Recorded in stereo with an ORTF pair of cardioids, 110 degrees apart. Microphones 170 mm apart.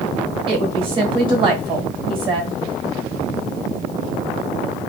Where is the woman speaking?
30° right, 1.4 m.